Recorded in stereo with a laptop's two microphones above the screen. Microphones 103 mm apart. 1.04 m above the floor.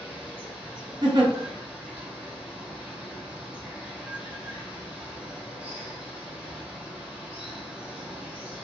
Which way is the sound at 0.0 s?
15° right (ahead or behind).